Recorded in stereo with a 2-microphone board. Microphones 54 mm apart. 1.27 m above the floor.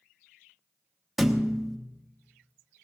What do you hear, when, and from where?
1.2 s a thud: 5° right (ahead or behind), 0.8 m